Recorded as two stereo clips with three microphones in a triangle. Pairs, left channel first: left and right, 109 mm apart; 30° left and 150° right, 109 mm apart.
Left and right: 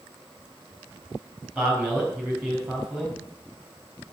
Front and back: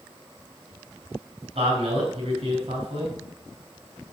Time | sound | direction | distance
1.6 | a man speaking | 165° right | 6 m